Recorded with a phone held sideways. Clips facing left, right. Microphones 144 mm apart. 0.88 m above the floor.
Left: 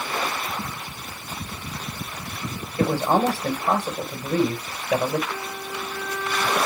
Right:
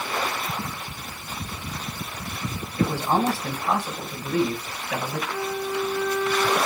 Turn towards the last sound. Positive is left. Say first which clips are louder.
# right 5 dB
turn(degrees=-20)  # may be behind; listen again after turning